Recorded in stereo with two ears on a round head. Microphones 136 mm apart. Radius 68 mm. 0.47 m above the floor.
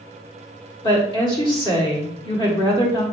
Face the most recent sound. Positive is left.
turn(degrees=30)  # may be behind; listen again after turning